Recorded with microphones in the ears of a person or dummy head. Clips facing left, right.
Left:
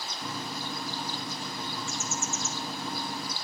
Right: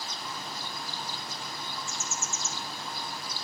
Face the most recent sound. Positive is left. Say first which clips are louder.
# left 8 dB
turn(degrees=40)  # may be behind; listen again after turning